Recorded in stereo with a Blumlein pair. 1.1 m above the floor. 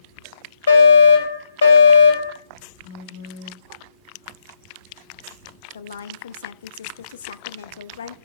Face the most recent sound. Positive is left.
turn(degrees=65)